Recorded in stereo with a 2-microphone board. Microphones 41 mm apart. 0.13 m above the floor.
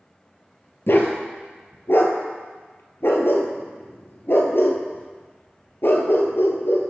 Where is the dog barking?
65° left (ahead or behind), 1.3 m.